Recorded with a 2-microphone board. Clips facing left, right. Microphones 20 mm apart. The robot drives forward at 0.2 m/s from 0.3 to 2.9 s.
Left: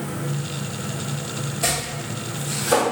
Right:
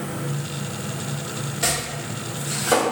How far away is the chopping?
About 1.7 m.